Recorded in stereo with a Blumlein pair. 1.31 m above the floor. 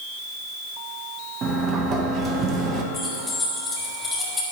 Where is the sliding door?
25° right, 1.2 m.